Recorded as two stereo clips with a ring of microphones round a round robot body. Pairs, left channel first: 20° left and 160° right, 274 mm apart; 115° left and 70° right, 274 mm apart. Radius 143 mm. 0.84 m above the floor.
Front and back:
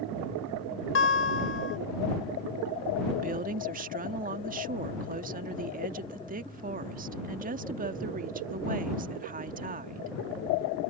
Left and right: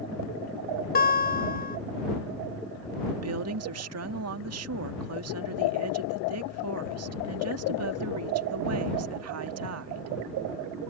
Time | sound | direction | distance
0.9 | a guitar | 60° left | ?
3.1 | a woman speaking | 100° right | ?